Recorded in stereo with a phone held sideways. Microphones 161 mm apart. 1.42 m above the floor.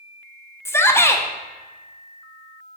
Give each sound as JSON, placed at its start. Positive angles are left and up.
{"t": 0.7, "sound": "a shout", "side_deg": 15, "distance_m": 0.8}